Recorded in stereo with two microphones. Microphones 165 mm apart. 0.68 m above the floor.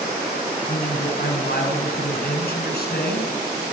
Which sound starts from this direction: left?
A man speaking, at 0.7 s.